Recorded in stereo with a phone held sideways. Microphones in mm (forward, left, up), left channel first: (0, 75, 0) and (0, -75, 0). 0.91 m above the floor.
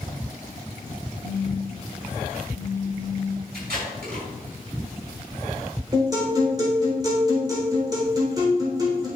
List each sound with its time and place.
1.2 s a phone buzzing: 30° right (ahead or behind), 1.5 m
3.5 s tape being pulled: 85° right, 4.5 m
5.9 s a guitar: 25° right (ahead or behind), 3.5 m